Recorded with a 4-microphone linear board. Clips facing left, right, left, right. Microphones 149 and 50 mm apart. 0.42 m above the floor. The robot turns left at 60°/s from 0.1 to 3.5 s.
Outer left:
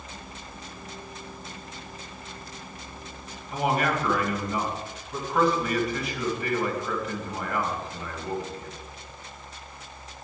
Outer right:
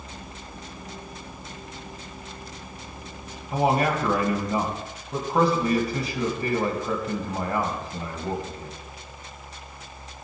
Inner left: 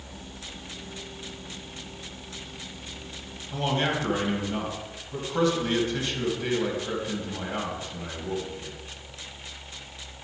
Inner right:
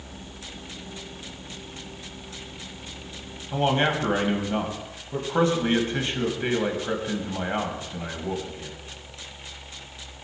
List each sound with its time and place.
3.5 s a man speaking: 35° right (ahead or behind), 3 m